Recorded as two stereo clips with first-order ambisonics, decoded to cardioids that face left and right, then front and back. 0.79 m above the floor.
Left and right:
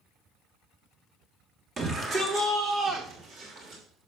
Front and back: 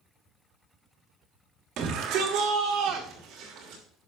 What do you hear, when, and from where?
1.8 s a shout: 160° right, 1.5 m; by 3.8 s 140° right, 3 m